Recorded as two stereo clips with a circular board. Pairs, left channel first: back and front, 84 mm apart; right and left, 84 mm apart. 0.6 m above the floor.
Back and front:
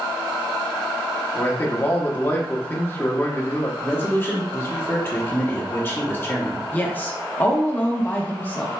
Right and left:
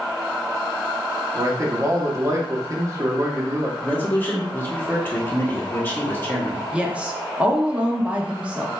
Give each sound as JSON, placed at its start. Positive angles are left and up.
{"t": 1.4, "sound": "a man speaking", "azimuth_deg": 125, "distance_m": 0.9}
{"t": 3.8, "sound": "a man speaking", "azimuth_deg": -135, "distance_m": 1.1}
{"t": 6.7, "sound": "a woman speaking", "azimuth_deg": 150, "distance_m": 0.7}